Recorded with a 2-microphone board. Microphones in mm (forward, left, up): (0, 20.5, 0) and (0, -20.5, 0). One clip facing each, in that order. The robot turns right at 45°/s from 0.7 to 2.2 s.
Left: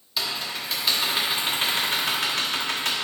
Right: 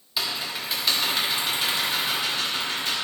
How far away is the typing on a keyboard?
About 1.1 m.